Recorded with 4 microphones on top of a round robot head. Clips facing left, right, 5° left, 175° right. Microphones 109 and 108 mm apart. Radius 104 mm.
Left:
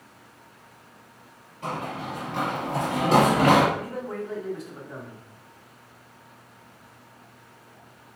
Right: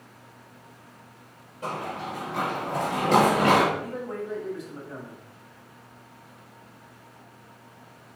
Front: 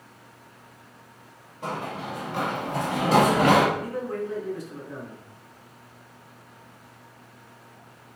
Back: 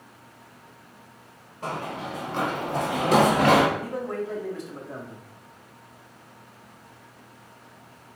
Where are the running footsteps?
65° right, 1.8 m; by 3.6 s 70° left, 1.8 m.